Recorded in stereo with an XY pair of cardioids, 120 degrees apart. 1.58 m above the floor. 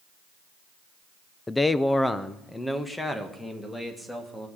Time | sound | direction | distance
1.5 | a man speaking | 15° left | 0.5 m